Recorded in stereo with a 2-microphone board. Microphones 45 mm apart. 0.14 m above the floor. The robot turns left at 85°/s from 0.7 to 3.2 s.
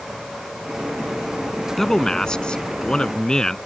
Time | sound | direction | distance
1.8 | a man speaking | 5° left (ahead or behind) | ?